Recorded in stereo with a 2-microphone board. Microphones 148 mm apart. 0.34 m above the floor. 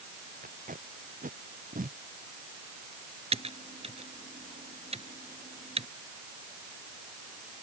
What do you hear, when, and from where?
0.4 s tape being pulled: 65° right (ahead or behind)
3.3 s typing on a keyboard: 40° right (ahead or behind)